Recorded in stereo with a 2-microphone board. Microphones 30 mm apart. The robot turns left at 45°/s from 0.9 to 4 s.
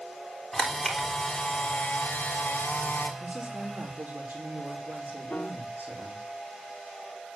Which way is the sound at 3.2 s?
30° right.